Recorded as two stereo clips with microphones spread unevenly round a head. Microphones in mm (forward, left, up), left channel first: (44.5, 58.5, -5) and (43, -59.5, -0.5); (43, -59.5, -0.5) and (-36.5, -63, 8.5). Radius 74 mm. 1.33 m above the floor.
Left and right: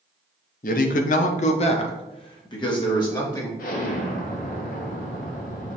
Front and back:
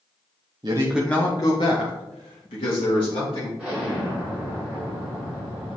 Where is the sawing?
I don't hear sawing.